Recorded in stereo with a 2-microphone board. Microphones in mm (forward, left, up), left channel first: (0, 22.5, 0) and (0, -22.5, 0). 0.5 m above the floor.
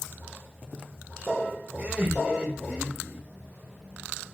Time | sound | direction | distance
1.8 | laughter | 30° right (ahead or behind) | 1.2 m